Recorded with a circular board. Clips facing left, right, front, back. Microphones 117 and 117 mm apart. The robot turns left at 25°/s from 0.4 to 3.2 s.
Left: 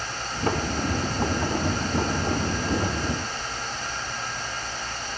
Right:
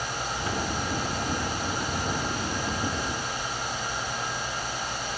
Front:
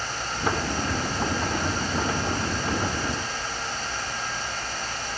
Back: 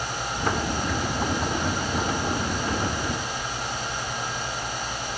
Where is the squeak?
No squeak in this recording.